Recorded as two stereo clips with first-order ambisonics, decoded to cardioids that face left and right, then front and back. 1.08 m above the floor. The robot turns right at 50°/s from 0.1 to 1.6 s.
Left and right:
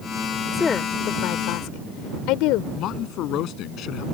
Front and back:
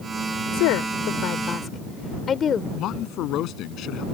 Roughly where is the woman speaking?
Ahead.